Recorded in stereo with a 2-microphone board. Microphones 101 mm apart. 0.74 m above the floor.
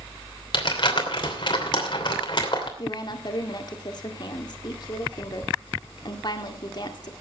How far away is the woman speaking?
About 1.8 m.